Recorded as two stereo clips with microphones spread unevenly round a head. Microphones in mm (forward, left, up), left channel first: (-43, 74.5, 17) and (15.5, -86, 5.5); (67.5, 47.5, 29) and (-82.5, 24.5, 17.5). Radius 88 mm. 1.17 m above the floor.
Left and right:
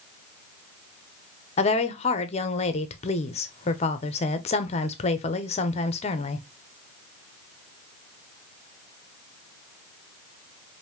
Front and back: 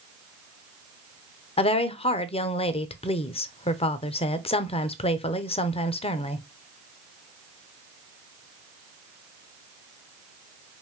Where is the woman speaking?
60° left, 0.7 m.